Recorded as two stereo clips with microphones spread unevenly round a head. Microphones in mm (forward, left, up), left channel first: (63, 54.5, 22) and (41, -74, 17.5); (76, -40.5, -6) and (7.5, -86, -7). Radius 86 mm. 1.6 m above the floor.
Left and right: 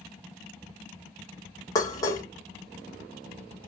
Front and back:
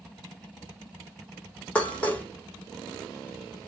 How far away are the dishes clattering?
About 0.7 m.